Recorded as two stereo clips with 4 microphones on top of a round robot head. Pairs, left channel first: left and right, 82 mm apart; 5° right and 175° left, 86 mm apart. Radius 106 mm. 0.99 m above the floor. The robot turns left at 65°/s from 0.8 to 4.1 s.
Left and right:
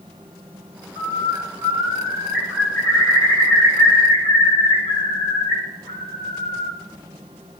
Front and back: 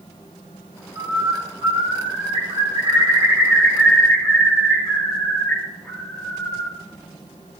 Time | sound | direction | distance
0.9 | a bird | 90° right | 8.5 m